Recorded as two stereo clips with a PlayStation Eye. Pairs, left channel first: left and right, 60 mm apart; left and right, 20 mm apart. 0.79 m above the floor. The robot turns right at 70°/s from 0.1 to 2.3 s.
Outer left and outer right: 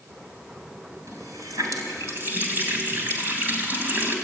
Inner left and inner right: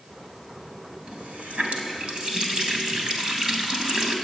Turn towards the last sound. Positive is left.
turn(degrees=-35)